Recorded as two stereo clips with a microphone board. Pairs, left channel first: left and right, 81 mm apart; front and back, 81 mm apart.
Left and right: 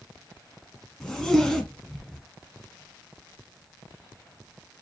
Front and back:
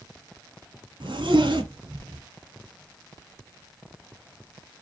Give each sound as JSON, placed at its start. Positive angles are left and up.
{"t": 1.0, "sound": "a zipper", "azimuth_deg": 175, "distance_m": 1.4}